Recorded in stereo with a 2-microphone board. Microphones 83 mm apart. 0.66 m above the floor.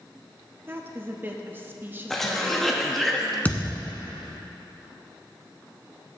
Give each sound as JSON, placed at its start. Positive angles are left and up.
{"t": 0.7, "sound": "a woman speaking", "side_deg": -25, "distance_m": 0.7}
{"t": 2.1, "sound": "a cough", "side_deg": 5, "distance_m": 0.7}
{"t": 3.5, "sound": "a thud", "side_deg": 20, "distance_m": 1.1}